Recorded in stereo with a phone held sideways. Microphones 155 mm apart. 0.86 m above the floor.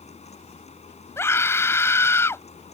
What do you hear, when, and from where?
0.0 s a fan: 45° left (ahead or behind)
1.2 s a scream: 15° left (ahead or behind)